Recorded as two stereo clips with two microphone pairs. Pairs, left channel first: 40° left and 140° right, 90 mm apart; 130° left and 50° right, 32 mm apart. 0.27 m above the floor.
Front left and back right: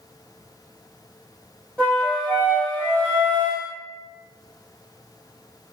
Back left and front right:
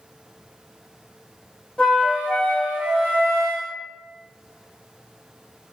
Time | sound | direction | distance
1.8 | a flute | 115° left | 1.6 m